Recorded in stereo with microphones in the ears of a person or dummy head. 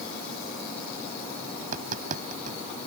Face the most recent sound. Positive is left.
turn(degrees=-45)  # may be behind; listen again after turning